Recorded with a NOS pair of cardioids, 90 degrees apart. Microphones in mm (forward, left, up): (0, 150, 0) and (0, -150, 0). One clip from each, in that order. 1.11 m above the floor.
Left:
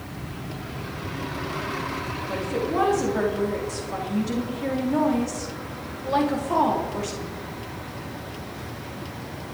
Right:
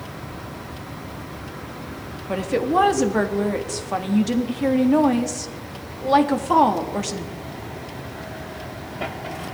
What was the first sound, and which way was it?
A woman speaking, 50° right.